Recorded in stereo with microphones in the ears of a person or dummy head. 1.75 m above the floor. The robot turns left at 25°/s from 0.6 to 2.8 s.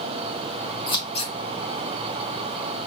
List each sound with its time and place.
0.9 s scissors: 20° left (ahead or behind), 0.6 m; by 1.3 s 35° left (ahead or behind), 0.6 m